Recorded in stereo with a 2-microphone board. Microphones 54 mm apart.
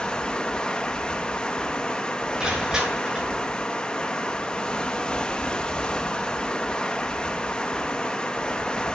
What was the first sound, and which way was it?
Running water, 20° left (ahead or behind).